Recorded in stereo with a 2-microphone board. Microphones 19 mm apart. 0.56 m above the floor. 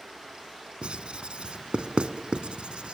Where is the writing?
80° right, 1.3 m.